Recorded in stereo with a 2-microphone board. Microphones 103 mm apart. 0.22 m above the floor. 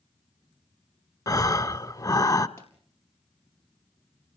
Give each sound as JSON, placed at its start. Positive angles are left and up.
{"t": 1.3, "sound": "breathing", "side_deg": 35, "distance_m": 0.7}
{"t": 2.6, "sound": "a pop", "side_deg": 25, "distance_m": 4.0}